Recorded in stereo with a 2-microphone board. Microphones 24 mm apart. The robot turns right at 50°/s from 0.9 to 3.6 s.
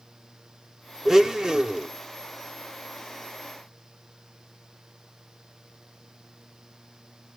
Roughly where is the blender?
Behind.